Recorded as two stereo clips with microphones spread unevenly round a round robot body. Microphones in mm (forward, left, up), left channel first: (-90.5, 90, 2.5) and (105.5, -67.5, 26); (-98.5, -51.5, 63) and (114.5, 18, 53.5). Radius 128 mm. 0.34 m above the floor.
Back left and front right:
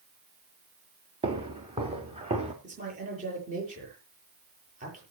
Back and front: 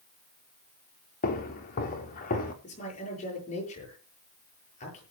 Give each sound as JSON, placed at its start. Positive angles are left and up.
{"t": 1.2, "sound": "footsteps", "azimuth_deg": -110, "distance_m": 3.0}
{"t": 2.6, "sound": "a man speaking", "azimuth_deg": -100, "distance_m": 9.0}